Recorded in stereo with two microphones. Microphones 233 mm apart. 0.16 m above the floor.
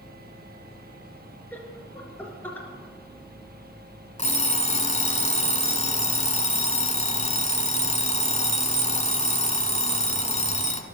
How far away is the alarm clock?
About 1.1 m.